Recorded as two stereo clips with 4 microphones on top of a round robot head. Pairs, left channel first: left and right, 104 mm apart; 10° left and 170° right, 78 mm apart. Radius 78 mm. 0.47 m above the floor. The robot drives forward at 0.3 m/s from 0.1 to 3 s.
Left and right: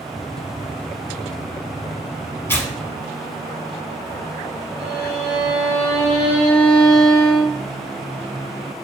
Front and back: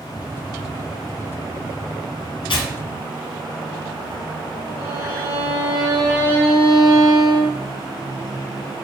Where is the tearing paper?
20° left, 0.9 m; by 4.2 s 25° left, 0.7 m.